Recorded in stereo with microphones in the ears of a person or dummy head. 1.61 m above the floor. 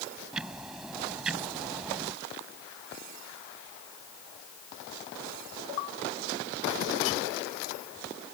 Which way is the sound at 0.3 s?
5° left (ahead or behind).